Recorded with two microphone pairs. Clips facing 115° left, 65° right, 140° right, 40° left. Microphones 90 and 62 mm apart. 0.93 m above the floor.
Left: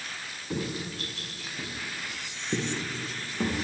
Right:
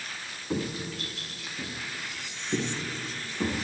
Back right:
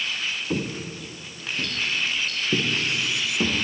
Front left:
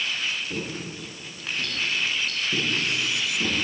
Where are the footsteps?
140° right, 2.0 m; by 3.6 s 170° right, 4.5 m.